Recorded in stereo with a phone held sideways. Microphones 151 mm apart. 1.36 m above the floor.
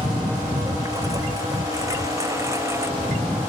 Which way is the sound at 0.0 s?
25° right (ahead or behind).